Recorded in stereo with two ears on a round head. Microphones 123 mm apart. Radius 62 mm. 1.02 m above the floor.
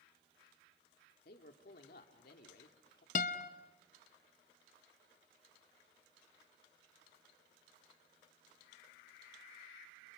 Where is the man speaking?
70° left (ahead or behind), 2 m.